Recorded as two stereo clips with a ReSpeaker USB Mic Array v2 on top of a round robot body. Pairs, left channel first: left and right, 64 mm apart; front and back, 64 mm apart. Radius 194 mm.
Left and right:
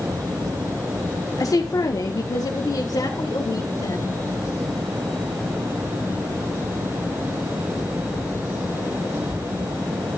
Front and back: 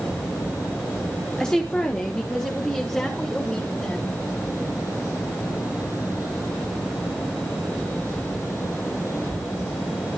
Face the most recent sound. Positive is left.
turn(degrees=75)